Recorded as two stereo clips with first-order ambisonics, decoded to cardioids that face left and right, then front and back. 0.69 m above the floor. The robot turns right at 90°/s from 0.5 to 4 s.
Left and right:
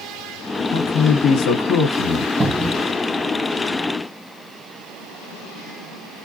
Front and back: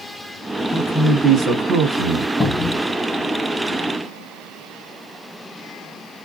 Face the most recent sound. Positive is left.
turn(degrees=100)